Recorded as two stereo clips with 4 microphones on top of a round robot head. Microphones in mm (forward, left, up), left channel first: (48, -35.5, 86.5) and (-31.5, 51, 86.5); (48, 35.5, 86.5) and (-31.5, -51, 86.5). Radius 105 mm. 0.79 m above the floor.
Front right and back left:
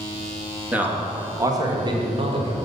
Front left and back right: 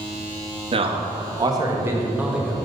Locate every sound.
0.7 s a man speaking: 155° right, 1.5 m; by 2.6 s 140° left, 1.4 m